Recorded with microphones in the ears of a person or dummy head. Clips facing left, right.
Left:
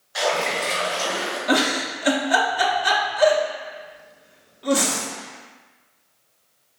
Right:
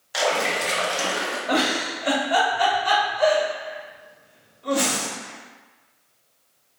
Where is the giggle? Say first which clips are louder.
Left 2 dB; 70° left (ahead or behind), 0.9 m.